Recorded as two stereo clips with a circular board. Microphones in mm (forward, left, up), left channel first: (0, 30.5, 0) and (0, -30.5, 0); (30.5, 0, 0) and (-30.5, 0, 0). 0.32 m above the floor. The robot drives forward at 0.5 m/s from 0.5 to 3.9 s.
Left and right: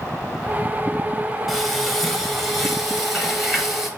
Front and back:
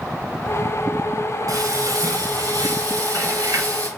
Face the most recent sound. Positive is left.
turn(degrees=-175)